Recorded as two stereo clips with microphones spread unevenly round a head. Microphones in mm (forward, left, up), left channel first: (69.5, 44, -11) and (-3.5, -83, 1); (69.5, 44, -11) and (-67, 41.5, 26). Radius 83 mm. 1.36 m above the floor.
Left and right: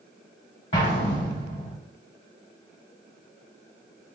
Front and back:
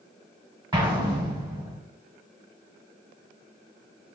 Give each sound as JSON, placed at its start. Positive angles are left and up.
{"t": 0.7, "sound": "an explosion", "azimuth_deg": 120, "distance_m": 1.2}